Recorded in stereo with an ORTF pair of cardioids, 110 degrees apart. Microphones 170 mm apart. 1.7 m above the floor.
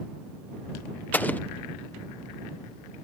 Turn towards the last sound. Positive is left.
turn(degrees=10)